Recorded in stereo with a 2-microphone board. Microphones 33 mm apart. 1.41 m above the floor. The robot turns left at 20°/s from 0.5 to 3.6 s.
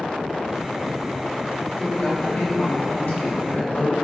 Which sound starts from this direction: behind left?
A woman speaking, at 1.8 s.